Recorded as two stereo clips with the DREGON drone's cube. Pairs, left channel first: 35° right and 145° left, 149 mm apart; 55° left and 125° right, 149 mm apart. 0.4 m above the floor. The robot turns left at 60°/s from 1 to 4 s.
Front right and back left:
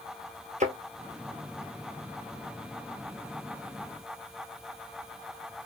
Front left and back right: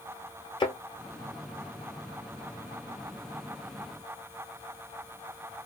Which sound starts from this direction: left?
A thud, at 0.6 s.